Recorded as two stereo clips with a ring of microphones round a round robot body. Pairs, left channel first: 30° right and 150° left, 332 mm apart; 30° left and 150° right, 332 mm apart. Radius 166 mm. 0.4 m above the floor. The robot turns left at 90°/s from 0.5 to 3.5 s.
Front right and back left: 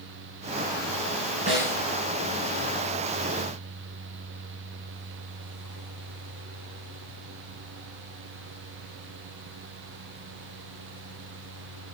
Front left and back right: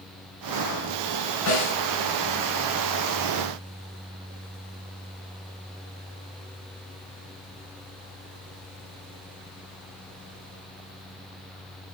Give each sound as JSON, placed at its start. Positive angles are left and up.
{"t": 1.5, "sound": "a snare drum", "azimuth_deg": 80, "distance_m": 6.0}